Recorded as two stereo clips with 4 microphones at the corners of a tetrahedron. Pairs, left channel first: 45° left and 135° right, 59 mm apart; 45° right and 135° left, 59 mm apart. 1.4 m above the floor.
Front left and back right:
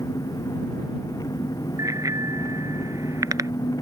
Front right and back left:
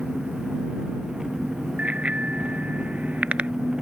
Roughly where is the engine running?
Ahead left.